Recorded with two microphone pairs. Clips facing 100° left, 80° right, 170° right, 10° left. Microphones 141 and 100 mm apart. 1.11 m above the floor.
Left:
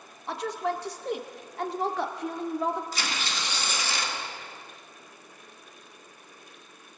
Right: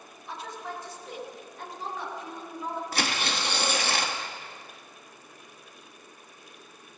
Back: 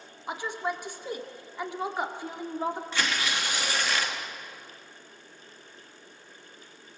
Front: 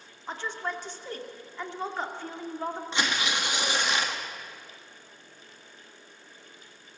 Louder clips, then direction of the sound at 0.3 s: Left 8 dB, back 2 dB; 115° left.